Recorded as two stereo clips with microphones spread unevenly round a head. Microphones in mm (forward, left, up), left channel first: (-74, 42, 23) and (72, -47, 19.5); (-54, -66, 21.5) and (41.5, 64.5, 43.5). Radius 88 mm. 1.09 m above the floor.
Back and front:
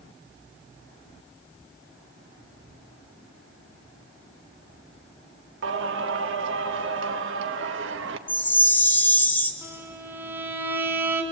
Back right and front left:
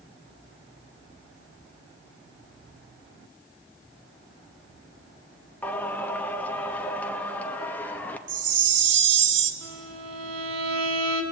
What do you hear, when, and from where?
5.6 s singing: 45° right, 1.2 m
8.3 s a chime: 70° left, 1.5 m
9.6 s a violin: 45° left, 2.5 m